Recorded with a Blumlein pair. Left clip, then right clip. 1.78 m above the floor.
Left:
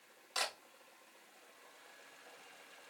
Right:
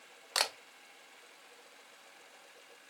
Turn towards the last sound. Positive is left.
turn(degrees=-35)